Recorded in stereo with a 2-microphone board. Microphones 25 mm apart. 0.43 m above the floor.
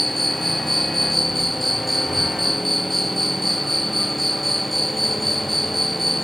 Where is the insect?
5° left (ahead or behind).